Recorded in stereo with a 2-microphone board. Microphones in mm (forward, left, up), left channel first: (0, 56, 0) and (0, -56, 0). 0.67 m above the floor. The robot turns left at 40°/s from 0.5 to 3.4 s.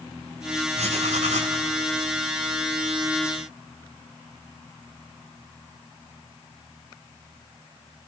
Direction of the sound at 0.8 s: 70° right.